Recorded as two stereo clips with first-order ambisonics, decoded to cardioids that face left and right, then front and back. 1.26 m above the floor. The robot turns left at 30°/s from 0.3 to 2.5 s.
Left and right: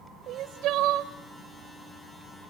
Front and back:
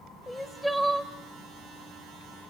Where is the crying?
85° right, 1.3 m; by 1.1 s 110° right, 1.3 m.